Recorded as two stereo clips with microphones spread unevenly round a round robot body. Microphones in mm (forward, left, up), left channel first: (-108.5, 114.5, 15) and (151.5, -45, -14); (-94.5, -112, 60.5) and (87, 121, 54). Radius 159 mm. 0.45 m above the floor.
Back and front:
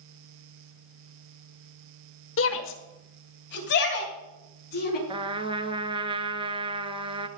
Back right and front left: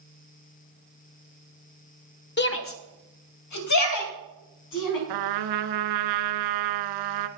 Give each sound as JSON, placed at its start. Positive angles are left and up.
{"t": 2.4, "sound": "a shout", "azimuth_deg": -170, "distance_m": 1.5}
{"t": 5.1, "sound": "a trumpet", "azimuth_deg": 45, "distance_m": 1.1}